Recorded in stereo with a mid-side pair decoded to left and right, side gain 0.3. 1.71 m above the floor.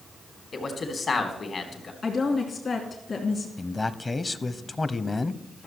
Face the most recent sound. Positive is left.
turn(degrees=40)